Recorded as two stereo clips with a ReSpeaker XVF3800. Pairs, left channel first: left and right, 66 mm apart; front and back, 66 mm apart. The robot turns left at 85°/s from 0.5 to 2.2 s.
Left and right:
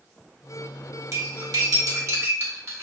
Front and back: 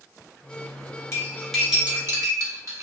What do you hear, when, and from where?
1.1 s cutlery clinking: 50° right, 0.8 m; by 2.8 s 140° right, 0.8 m